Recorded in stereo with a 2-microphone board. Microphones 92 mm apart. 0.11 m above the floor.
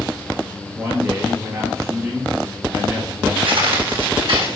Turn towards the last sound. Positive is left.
turn(degrees=-70)  # may be behind; listen again after turning